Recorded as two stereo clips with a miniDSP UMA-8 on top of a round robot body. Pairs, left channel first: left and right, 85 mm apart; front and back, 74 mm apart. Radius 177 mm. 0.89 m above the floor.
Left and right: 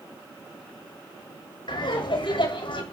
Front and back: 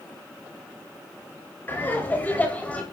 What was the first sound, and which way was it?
Laughter, 60° left.